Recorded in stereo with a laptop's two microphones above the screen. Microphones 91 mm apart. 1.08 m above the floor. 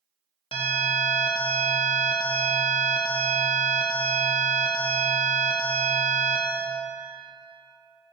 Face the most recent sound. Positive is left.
turn(degrees=80)